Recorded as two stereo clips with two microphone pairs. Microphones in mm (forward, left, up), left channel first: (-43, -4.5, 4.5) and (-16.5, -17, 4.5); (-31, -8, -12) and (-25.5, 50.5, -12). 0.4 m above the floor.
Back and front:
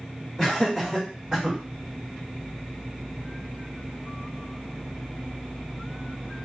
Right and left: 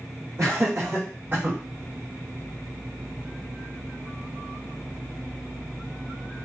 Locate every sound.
0.4 s laughter: 80° left, 1.9 m; by 1.6 s 40° left, 1.6 m